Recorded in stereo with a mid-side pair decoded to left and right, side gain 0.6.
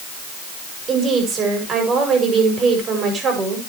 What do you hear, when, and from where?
0.9 s a woman speaking: 40° right, 7 m